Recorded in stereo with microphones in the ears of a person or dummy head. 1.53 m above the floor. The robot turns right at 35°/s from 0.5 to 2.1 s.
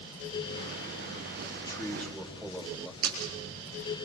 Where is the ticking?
I don't hear ticking.